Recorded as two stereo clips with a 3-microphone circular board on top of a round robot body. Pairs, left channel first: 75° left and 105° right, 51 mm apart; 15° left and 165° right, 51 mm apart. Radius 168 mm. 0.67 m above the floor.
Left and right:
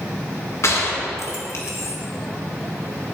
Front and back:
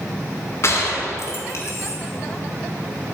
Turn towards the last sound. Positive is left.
turn(degrees=50)